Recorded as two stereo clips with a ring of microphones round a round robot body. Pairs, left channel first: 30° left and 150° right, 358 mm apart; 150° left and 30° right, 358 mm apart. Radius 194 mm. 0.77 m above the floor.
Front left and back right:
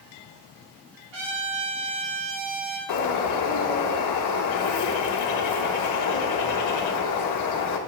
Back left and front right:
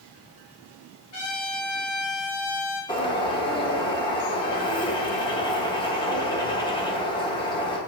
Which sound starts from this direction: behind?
A trumpet, at 1.1 s.